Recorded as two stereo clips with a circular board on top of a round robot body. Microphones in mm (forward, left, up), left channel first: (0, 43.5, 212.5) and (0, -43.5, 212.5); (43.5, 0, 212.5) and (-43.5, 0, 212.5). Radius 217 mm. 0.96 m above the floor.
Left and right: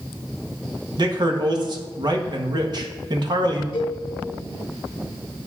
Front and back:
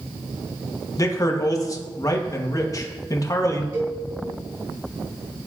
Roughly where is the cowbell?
Behind left.